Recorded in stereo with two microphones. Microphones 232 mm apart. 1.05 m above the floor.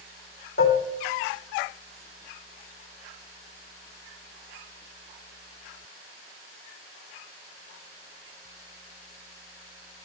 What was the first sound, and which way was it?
Dishes clattering, 65° left (ahead or behind).